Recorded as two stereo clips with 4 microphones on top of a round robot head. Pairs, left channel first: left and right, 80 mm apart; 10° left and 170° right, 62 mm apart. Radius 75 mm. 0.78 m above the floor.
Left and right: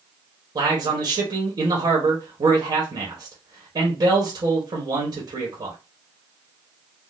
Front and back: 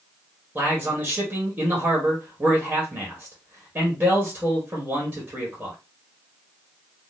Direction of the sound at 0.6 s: 110° right.